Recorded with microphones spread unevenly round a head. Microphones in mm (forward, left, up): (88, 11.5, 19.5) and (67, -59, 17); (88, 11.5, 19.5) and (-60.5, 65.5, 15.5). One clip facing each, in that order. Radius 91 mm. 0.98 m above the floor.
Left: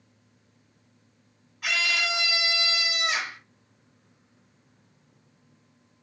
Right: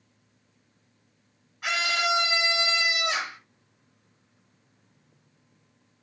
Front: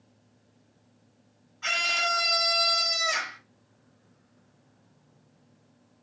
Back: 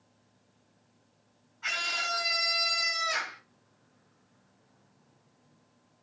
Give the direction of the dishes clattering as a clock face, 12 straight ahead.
I don't hear dishes clattering.